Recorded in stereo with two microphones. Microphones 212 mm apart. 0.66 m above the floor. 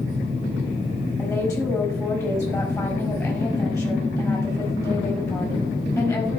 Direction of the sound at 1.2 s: 15° left (ahead or behind).